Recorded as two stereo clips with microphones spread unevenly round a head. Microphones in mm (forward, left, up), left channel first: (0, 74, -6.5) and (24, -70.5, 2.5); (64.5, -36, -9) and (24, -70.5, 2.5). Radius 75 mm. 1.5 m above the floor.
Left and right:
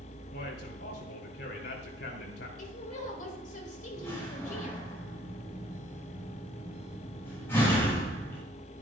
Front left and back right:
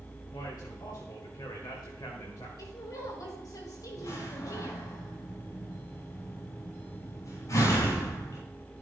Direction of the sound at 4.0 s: 25° left.